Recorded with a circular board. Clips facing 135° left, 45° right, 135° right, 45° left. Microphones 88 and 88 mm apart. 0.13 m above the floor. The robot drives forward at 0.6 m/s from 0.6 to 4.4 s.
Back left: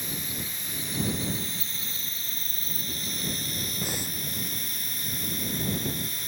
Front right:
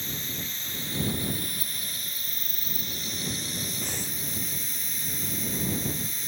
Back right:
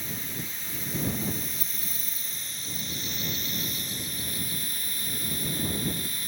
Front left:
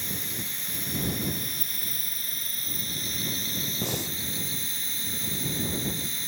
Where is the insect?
60° left; by 6.3 s 110° left.